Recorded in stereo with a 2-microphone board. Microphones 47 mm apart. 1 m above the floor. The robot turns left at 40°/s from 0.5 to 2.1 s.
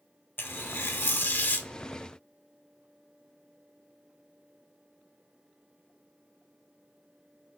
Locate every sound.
0.4 s tearing paper: 95° left, 0.8 m; by 1.7 s 50° left, 0.8 m